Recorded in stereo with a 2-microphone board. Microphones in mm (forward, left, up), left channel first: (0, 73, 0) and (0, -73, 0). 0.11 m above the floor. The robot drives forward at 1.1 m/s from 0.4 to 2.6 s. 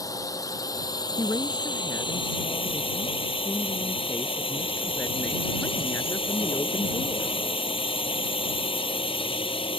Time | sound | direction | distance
0.0 | a drone | 25° left (ahead or behind) | ?
1.2 | a woman speaking | 20° left (ahead or behind) | ?